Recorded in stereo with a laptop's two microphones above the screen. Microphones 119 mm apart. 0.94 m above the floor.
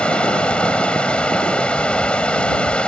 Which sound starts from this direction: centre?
Running water, at 0.0 s.